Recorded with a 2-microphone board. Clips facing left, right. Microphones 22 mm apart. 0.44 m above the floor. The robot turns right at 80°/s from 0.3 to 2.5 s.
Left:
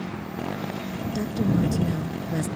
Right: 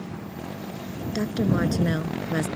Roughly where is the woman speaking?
Behind right.